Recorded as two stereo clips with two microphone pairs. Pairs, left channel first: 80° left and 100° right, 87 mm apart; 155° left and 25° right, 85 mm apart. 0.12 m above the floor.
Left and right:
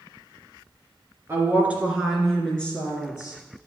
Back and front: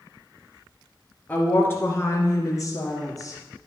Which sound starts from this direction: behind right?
A woman speaking, at 1.3 s.